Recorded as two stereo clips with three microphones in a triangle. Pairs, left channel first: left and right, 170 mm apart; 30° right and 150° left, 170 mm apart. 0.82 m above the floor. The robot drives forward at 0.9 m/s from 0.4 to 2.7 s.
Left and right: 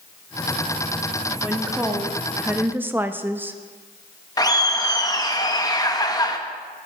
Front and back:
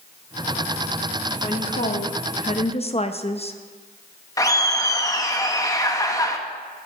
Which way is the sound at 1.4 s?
5° right.